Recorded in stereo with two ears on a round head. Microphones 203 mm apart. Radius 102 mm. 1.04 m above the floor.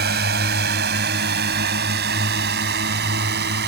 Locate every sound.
0.0 s a drone: 45° right (ahead or behind)